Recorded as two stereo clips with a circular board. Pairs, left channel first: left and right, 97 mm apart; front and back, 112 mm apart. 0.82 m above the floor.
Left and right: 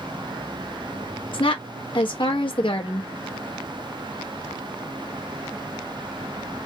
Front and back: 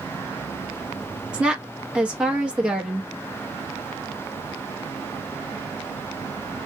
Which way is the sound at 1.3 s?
100° left.